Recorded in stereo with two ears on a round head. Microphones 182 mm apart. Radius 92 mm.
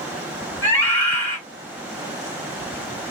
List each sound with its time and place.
0.6 s a scream: 10° left (ahead or behind), 2 m